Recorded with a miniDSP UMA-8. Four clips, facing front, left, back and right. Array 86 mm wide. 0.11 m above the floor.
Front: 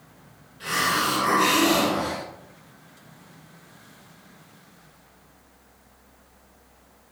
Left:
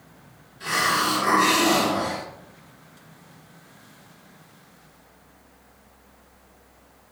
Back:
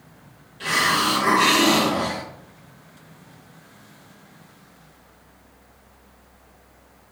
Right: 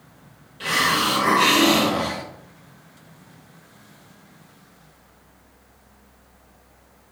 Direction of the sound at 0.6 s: 110° right.